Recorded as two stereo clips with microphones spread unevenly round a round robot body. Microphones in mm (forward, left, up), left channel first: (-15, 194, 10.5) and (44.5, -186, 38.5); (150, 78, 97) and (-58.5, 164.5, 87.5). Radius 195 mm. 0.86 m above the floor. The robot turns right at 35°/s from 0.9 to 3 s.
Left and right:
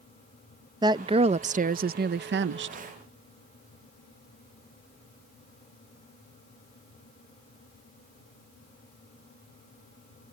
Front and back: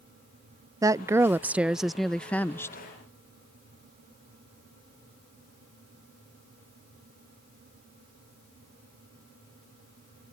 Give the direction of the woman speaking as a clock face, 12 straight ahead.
5 o'clock.